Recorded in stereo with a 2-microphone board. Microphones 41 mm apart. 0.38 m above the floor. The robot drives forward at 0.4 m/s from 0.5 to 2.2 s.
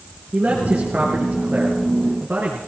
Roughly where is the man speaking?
Right.